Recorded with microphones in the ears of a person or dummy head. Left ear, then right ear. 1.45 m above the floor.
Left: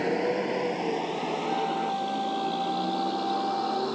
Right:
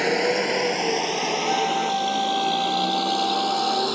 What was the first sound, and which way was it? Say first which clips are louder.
A vehicle: right 5 dB; 70° right (ahead or behind).